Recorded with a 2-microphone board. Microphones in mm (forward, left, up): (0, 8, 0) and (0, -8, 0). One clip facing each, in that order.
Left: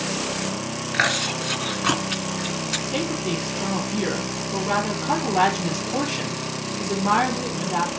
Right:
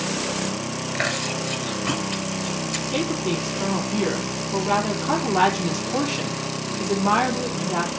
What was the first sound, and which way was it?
Chewing, 70° left (ahead or behind).